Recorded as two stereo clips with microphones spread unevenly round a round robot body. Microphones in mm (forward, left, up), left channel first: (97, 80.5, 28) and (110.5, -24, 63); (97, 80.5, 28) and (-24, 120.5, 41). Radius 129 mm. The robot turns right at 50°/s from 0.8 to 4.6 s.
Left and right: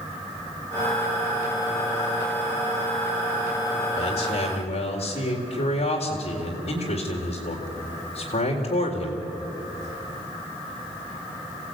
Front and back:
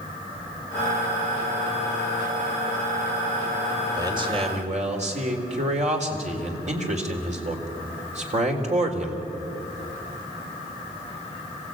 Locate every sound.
4.0 s a man speaking: 95° left, 4 m; by 9.3 s 130° left, 4 m